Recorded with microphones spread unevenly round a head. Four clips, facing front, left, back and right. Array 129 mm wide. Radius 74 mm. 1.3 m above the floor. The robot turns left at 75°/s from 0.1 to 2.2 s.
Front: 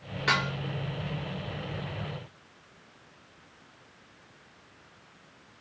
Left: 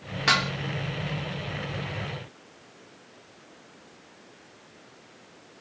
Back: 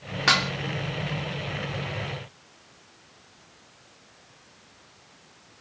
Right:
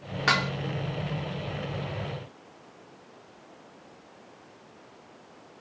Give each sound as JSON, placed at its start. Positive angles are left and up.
{"t": 0.3, "sound": "dishes clattering", "azimuth_deg": -165, "distance_m": 1.1}